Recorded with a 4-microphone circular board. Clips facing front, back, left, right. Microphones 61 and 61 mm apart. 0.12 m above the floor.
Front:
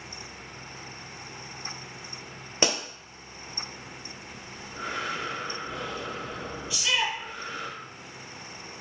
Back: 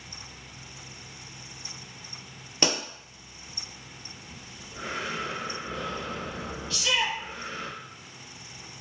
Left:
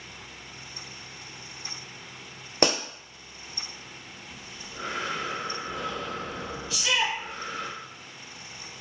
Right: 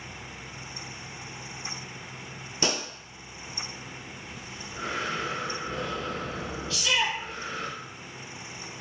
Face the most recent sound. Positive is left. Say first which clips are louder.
# even, even
turn(degrees=50)